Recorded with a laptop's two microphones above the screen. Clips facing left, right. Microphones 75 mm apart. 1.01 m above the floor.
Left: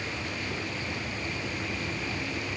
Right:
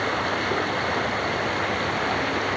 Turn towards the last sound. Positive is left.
turn(degrees=-60)  # may be behind; listen again after turning